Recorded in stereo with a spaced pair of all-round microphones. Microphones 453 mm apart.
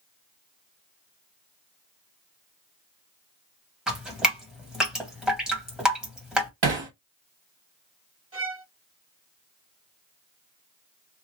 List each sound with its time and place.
3.9 s dripping: centre (ahead or behind), 1.7 m
6.6 s hammering: 70° right (ahead or behind), 1.0 m
8.3 s a violin: 30° right (ahead or behind), 0.8 m